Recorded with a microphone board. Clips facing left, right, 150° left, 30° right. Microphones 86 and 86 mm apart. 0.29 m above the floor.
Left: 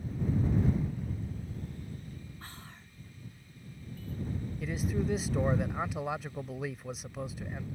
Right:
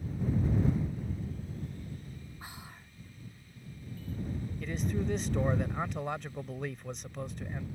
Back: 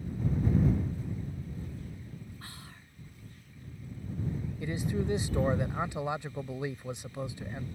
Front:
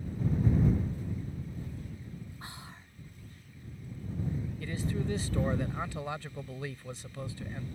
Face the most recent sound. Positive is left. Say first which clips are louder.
# left 1 dB, back 3 dB
turn(degrees=165)